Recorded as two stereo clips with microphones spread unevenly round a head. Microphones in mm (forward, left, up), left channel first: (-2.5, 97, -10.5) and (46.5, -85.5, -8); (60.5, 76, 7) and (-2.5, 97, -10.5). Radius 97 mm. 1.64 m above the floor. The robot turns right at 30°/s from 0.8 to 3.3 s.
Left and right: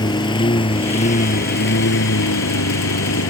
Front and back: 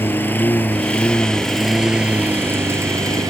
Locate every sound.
0.0 s a lawn mower: 40° left; by 3.3 s 130° left